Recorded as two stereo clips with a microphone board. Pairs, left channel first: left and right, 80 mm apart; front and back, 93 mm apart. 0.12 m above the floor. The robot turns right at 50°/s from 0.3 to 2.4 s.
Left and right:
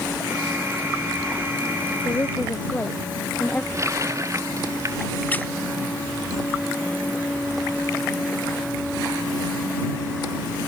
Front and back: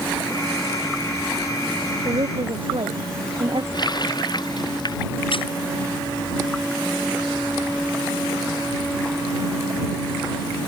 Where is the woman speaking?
140° left; by 3.6 s 160° left.